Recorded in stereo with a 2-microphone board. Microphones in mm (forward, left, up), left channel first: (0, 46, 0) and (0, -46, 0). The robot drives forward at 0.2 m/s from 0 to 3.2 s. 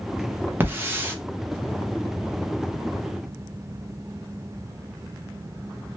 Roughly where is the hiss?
Right.